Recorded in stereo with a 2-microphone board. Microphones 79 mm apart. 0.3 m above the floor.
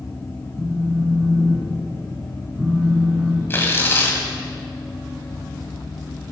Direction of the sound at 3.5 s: 30° left (ahead or behind).